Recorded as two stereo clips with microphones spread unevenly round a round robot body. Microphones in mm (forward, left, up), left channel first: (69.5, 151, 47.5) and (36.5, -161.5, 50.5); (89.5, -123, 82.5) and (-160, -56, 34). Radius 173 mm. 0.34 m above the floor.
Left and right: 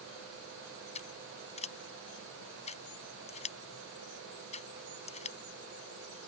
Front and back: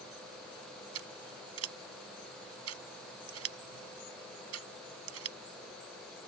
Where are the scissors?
155° left.